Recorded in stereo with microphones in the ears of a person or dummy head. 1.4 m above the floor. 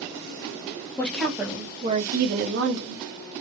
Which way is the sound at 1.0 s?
5° left (ahead or behind).